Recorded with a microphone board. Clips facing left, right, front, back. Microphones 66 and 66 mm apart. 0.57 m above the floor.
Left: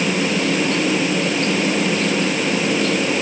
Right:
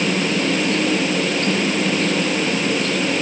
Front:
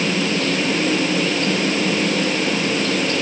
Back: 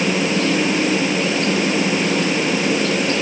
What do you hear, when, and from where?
Only background noise.